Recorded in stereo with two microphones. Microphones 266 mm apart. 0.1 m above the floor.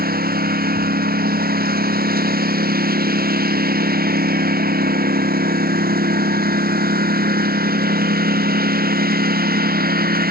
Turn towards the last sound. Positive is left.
turn(degrees=-35)  # may be behind; listen again after turning